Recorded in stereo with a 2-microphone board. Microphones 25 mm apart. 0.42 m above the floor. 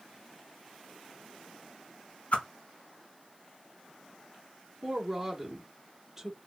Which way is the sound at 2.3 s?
65° left (ahead or behind).